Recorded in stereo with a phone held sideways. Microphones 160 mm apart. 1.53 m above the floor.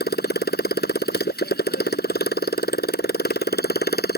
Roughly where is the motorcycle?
Left.